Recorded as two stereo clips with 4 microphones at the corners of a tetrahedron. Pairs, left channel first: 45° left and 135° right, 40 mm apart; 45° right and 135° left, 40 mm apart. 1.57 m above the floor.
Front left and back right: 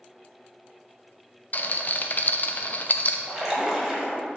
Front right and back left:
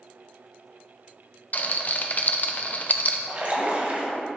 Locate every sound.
1.5 s a rattle: straight ahead, 0.6 m
3.3 s a splash: 155° left, 1.6 m